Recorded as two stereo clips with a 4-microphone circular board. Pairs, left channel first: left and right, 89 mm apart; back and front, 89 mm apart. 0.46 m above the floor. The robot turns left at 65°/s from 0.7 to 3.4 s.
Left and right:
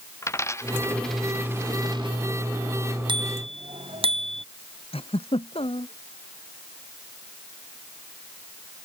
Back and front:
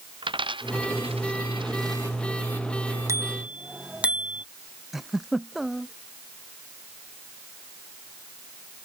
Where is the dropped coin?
30° left; by 2.2 s 65° right.